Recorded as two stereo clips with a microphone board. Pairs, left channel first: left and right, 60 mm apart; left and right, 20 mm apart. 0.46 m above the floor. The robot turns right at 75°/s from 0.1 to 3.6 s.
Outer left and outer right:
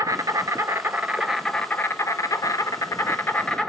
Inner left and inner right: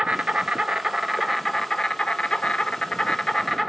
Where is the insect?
95° right, 1.0 m; by 3.7 s 170° left, 1.0 m.